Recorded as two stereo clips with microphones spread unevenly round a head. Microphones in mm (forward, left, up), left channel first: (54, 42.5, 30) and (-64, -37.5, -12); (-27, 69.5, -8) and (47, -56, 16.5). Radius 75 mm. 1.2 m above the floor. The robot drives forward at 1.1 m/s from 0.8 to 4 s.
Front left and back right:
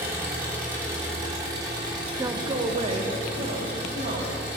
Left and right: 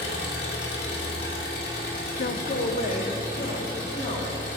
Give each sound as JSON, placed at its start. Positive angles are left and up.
{"t": 0.0, "sound": "an engine running", "azimuth_deg": 135, "distance_m": 3.0}
{"t": 2.2, "sound": "a man speaking", "azimuth_deg": 150, "distance_m": 0.5}